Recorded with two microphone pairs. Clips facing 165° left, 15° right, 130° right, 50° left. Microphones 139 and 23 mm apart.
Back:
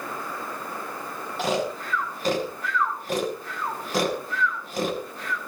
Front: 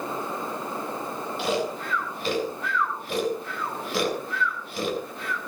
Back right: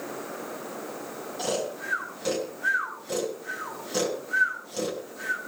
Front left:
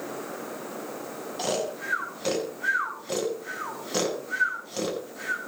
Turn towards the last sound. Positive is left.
turn(degrees=115)